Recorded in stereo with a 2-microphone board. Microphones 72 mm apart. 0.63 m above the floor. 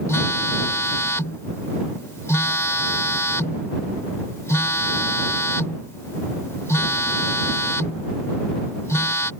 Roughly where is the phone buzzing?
Left.